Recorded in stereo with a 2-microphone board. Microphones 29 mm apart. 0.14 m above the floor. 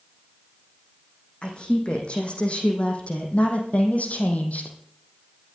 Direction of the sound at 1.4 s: 40° left (ahead or behind).